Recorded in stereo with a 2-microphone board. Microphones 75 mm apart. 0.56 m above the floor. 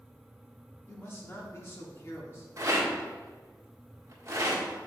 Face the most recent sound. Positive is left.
turn(degrees=-45)  # may be behind; listen again after turning